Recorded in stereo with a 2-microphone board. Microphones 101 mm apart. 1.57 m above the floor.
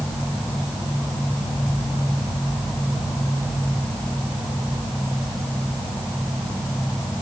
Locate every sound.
Only background noise.